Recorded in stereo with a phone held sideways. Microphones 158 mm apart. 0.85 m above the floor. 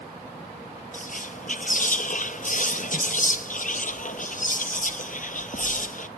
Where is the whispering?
55° left (ahead or behind), 0.6 m.